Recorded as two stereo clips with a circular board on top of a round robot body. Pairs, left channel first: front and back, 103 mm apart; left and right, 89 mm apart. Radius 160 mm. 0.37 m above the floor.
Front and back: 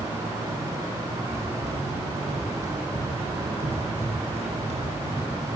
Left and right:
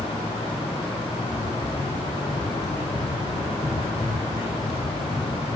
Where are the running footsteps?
170° right, 9 m; by 5.5 s 170° left, 8 m.